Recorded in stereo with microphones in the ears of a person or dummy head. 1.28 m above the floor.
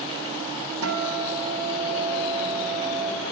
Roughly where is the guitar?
Right.